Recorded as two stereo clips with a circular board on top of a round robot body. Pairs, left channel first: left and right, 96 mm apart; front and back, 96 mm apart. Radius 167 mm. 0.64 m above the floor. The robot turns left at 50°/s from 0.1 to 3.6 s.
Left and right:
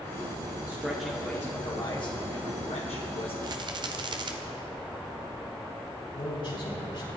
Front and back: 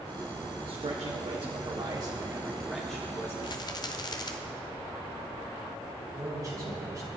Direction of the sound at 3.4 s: 40° right.